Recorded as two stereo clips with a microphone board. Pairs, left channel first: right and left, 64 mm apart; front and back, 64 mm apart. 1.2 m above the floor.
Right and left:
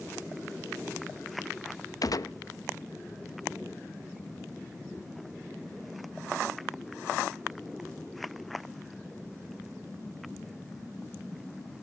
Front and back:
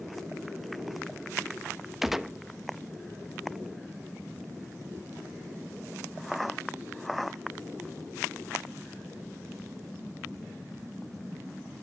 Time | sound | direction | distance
2.0 | a gunshot | 95° right | 0.8 m